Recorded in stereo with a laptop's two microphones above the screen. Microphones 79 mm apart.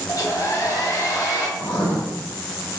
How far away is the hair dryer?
About 0.7 m.